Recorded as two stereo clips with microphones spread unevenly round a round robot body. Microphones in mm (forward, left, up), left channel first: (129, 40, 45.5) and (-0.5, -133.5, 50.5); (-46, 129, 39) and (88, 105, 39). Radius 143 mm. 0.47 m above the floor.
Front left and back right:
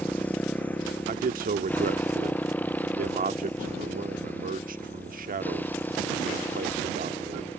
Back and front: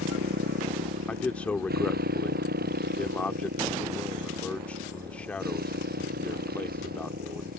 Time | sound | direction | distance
0.0 | a motorcycle | 30° right | ?
1.1 | a man speaking | 115° right | ?